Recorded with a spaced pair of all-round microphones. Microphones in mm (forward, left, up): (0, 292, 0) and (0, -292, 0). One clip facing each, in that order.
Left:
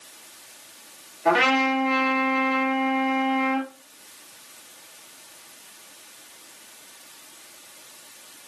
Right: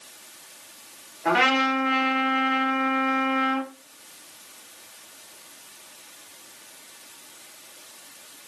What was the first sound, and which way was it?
A trumpet, centre (ahead or behind).